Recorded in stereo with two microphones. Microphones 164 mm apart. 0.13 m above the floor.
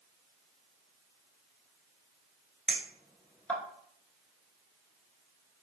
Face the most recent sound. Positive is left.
turn(degrees=5)  # may be behind; listen again after turning